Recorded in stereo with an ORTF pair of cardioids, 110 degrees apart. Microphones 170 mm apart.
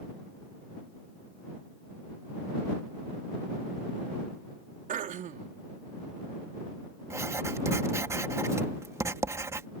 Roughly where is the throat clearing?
Ahead right.